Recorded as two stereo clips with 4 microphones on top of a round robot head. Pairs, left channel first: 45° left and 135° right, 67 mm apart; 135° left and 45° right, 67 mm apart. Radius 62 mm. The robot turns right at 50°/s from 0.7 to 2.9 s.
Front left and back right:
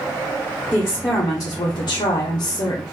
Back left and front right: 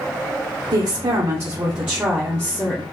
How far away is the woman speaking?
About 1.0 m.